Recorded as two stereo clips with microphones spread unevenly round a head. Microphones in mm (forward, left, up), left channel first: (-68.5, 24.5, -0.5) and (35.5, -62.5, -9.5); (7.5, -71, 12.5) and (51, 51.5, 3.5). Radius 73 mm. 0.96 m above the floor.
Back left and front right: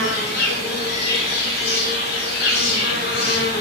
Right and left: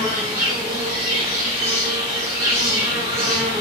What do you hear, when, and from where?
0.0 s an insect: 145° left, 0.8 m